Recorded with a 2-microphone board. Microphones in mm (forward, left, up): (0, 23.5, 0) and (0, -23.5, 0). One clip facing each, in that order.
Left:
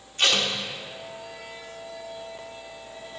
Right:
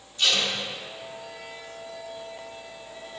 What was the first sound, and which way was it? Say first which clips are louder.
Tape being pulled: left 2 dB; 55° left (ahead or behind).